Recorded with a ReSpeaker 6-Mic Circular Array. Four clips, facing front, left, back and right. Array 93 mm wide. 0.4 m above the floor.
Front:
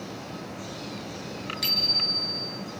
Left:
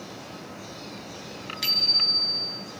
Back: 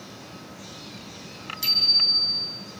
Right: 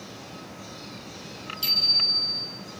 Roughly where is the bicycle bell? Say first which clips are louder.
Left 1 dB, front 2 dB; left.